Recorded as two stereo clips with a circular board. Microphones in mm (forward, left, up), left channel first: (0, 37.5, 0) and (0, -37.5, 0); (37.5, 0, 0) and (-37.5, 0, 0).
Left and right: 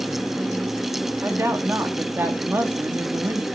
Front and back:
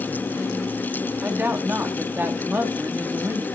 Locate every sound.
1.2 s a woman speaking: 130° right, 1.3 m